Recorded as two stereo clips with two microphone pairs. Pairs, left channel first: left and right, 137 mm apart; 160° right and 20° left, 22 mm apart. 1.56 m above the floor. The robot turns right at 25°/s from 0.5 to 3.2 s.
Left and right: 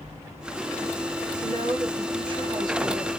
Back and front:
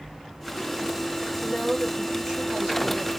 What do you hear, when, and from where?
1.4 s a woman speaking: 60° right, 1.3 m; by 3.1 s 15° right, 1.3 m